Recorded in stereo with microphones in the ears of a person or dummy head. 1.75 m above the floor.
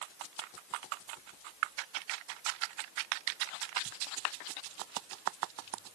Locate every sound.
Only background noise.